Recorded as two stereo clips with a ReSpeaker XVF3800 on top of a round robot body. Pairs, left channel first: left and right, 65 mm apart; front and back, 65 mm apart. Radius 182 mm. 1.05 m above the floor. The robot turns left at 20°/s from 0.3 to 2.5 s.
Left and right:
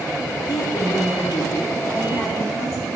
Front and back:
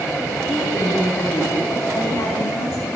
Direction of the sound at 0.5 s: 75° left.